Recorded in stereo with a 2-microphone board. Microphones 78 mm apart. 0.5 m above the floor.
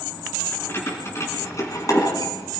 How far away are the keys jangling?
About 5.5 m.